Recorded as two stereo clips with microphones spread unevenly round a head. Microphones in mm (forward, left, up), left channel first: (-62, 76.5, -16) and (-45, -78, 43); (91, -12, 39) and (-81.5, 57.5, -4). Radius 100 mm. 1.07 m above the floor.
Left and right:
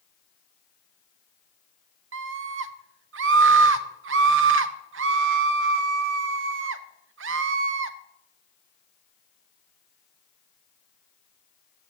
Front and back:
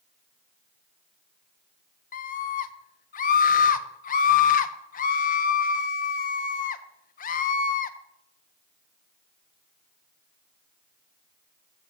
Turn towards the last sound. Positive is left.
turn(degrees=-75)